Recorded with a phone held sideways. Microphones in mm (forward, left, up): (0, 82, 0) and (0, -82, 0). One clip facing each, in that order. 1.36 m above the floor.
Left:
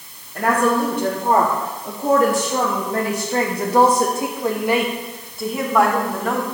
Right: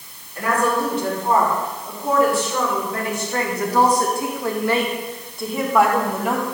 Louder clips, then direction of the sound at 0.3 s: Left 3 dB; 60° left (ahead or behind).